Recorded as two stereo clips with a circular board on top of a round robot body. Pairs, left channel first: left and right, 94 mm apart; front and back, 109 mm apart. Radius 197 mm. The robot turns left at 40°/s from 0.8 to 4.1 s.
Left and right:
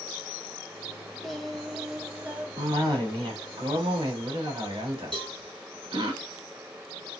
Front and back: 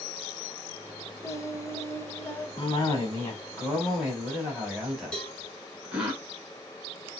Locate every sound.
1.2 s singing: 10° left, 1.0 m; by 2.5 s 40° right, 1.0 m
2.6 s a cough: 35° right, 2.5 m; by 6.1 s 95° right, 2.5 m
5.1 s a cowbell: 80° right, 2.5 m